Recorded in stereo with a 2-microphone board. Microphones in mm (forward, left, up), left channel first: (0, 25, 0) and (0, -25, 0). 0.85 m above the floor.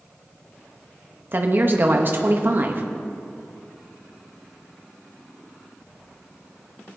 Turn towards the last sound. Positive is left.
turn(degrees=-45)  # may be behind; listen again after turning